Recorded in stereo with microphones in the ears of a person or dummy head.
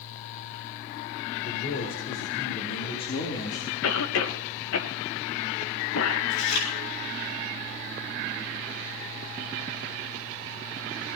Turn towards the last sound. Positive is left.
turn(degrees=85)